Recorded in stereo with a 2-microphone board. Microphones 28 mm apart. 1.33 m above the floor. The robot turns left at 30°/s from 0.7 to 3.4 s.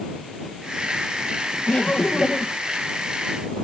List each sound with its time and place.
1.7 s laughter: 60° left (ahead or behind); by 2.6 s 35° left (ahead or behind)